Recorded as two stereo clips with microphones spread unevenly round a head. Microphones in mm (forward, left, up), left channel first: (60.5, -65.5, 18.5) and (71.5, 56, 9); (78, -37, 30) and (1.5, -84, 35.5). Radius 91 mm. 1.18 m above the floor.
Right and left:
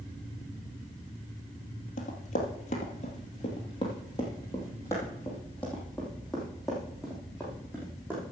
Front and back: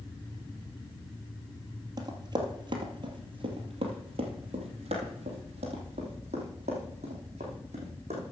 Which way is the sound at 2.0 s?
110° right.